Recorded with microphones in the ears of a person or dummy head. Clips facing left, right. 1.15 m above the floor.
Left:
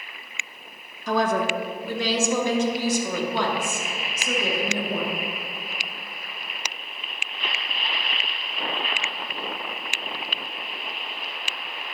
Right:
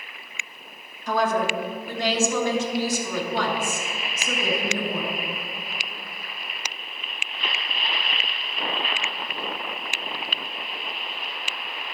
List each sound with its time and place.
1.1 s a woman speaking: 55° left (ahead or behind), 0.9 m; by 5.2 s 70° left (ahead or behind), 3.5 m